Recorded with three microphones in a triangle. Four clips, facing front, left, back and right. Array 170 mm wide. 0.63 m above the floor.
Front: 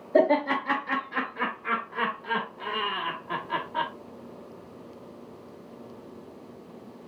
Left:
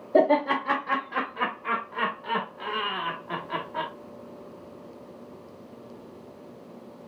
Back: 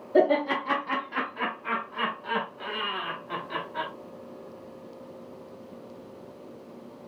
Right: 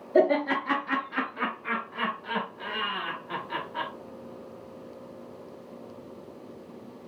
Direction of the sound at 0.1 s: 75° left.